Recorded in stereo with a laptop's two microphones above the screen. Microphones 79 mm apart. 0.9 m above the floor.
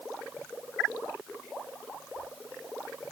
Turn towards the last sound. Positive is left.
No sound to turn to.